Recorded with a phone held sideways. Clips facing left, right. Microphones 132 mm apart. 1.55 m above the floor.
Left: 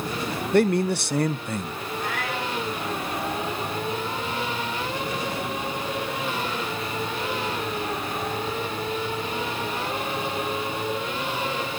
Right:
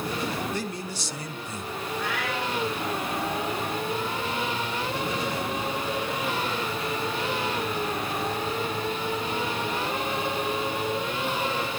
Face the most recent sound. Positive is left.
turn(degrees=45)  # may be behind; listen again after turning